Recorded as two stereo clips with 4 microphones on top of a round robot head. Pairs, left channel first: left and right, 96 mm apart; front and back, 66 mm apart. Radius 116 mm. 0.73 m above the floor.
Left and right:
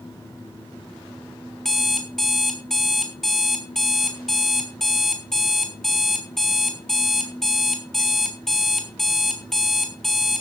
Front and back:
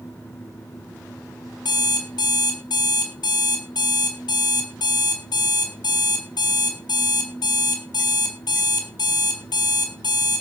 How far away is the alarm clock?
About 3.5 m.